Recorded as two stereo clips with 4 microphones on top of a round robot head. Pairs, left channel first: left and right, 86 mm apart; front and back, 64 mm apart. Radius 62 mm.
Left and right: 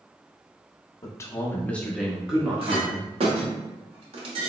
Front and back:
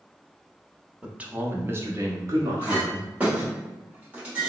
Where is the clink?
105° right, 1.0 m.